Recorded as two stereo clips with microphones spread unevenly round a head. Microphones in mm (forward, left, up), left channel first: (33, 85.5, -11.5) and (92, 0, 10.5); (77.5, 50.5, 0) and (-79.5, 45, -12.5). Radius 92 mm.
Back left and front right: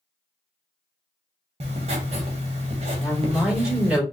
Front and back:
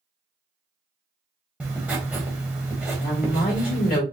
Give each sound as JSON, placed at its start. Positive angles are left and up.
{"t": 1.6, "sound": "writing", "azimuth_deg": -95, "distance_m": 0.7}
{"t": 3.0, "sound": "a woman speaking", "azimuth_deg": 30, "distance_m": 2.0}